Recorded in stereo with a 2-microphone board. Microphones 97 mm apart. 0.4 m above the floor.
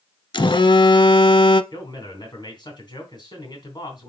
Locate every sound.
0.3 s a phone buzzing: 55° left (ahead or behind), 0.5 m
1.7 s a man speaking: 50° left (ahead or behind), 3 m